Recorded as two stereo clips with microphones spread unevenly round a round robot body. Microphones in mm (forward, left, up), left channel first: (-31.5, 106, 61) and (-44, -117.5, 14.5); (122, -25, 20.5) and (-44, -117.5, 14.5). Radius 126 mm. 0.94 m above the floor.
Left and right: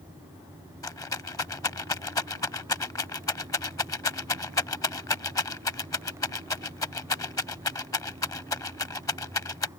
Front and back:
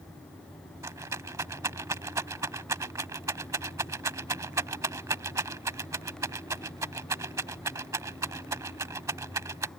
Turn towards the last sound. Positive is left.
turn(degrees=135)